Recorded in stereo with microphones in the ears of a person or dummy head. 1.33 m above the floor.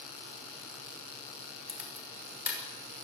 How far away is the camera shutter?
About 6.5 m.